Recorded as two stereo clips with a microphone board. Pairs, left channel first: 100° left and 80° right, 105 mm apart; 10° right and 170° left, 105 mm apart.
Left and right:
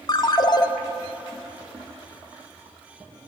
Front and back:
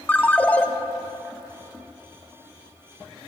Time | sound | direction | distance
0.1 | a ringtone | 60° left | 0.5 m